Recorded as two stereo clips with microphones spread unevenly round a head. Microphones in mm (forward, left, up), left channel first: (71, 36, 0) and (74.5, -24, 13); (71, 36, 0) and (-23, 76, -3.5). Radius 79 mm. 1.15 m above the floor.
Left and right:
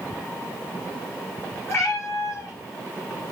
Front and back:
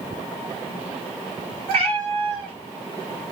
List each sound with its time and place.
1.7 s a cat meowing: 175° left, 1.6 m